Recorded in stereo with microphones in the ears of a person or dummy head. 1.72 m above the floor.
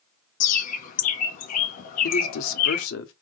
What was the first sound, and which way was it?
A bird, 50° left (ahead or behind).